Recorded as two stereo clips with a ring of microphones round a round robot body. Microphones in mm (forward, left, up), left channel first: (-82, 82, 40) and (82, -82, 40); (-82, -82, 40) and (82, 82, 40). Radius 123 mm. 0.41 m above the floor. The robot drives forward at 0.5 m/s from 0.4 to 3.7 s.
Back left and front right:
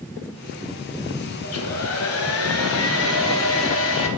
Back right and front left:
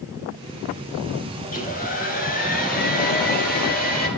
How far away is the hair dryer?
About 3 m.